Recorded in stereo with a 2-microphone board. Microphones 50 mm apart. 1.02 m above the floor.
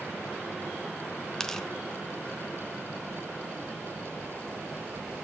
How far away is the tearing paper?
About 1.1 m.